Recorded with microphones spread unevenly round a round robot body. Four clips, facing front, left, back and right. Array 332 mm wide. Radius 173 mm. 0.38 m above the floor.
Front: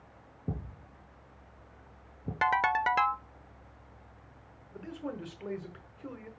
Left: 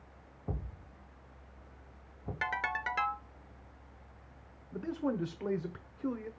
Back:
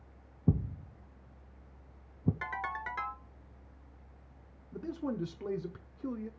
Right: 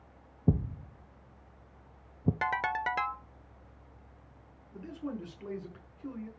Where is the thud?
120° right, 0.6 m.